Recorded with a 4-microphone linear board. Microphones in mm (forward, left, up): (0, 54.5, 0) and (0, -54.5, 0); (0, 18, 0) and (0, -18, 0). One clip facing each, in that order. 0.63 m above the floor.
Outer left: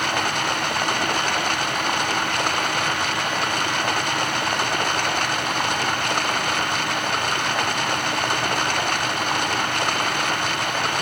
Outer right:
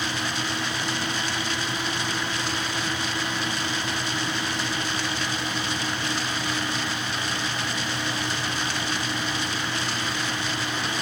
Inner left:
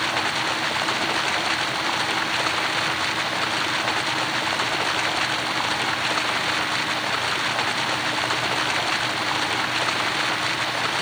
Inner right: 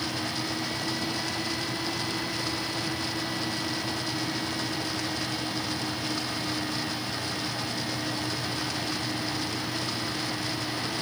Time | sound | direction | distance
0.0 | running water | 60° left (ahead or behind) | ?